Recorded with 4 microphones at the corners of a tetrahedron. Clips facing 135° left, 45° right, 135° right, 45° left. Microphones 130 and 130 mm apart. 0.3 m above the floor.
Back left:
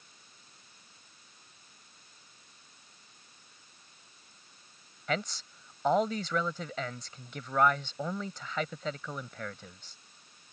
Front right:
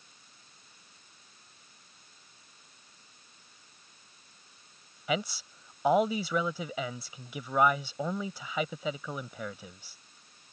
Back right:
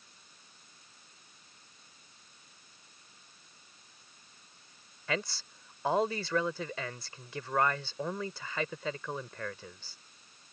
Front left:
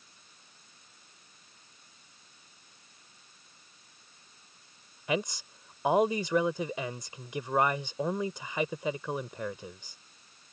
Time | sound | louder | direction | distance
5.1 | a man speaking | front right 2 dB, front left 4 dB | 15° left | ?